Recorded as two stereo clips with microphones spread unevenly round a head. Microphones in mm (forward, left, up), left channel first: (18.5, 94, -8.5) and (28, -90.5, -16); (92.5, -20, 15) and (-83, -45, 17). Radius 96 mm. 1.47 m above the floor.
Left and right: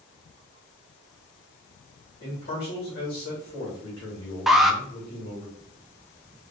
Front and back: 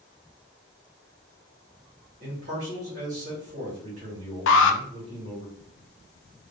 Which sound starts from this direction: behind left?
A man speaking, at 2.2 s.